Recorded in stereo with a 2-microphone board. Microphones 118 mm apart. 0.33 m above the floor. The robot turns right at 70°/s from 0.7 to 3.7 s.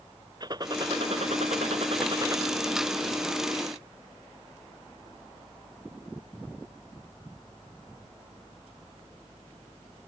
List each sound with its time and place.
0.4 s a gunshot: 140° right; by 2.4 s 25° right